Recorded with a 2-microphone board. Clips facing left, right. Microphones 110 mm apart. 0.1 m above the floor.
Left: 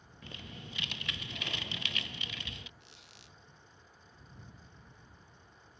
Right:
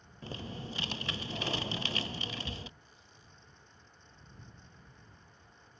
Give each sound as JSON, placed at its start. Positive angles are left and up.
{"t": 0.2, "sound": "typing on a keyboard", "side_deg": -35}
{"t": 2.8, "sound": "a squeak", "side_deg": 80}